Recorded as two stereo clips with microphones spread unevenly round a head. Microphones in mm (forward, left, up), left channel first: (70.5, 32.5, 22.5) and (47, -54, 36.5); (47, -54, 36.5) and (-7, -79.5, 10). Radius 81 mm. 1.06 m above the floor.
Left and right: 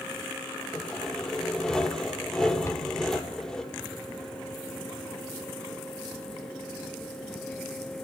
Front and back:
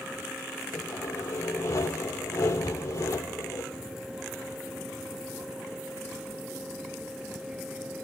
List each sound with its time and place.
0.7 s sawing: 10° right, 4.5 m
2.6 s a cupboard door: 20° left, 4.5 m